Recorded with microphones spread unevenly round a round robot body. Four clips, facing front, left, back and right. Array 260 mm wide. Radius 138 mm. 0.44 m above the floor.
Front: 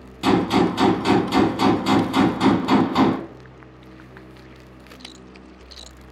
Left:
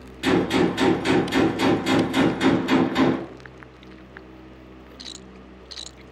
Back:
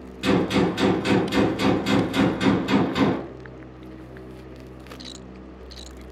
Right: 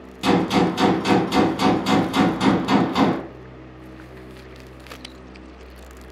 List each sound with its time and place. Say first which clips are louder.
0.2 s a gunshot: right 1 dB, front 3 dB; 10° right, 1.3 m